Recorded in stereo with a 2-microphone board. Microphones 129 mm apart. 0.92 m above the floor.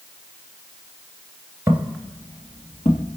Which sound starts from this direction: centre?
Footsteps, at 1.7 s.